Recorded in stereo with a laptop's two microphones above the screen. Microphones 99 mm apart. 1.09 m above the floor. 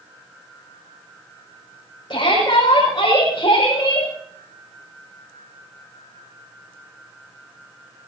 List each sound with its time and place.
2.1 s a shout: 55° left (ahead or behind), 6 m